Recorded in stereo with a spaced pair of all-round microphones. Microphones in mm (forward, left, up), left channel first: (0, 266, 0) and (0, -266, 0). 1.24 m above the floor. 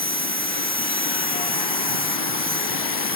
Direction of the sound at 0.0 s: 15° right (ahead or behind).